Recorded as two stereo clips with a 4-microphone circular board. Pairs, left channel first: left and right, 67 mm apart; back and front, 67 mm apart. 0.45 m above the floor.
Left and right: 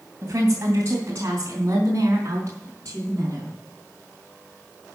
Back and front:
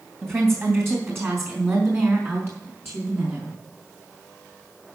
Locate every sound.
0.2 s a woman speaking: 50° right, 2.5 m; by 3.5 s 45° right, 4.5 m